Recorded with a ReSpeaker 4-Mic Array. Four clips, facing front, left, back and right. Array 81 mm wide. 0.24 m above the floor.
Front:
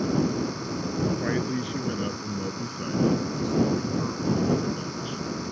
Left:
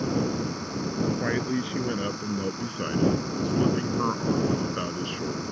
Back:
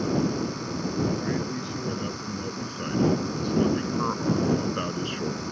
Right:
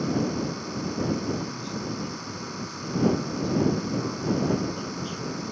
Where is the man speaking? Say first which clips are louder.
Left 4 dB, front 2 dB; 75° left; by 5.4 s 155° left.